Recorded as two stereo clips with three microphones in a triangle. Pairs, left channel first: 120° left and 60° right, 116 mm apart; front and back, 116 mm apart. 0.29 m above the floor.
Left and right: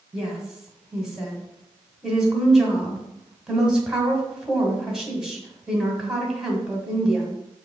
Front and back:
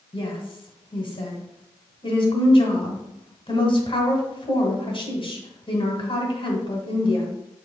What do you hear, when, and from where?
0.1 s a woman speaking: 25° left, 1.9 m